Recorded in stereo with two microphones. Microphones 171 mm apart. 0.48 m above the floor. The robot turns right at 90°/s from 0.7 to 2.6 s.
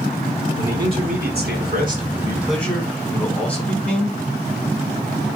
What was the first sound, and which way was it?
A man speaking, 165° right.